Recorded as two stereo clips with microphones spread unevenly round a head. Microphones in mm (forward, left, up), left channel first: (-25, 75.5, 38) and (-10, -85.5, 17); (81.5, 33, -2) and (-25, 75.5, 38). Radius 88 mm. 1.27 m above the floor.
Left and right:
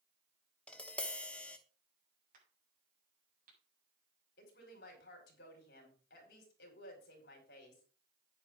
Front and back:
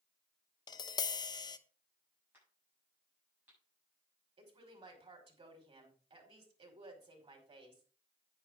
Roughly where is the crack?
Behind right.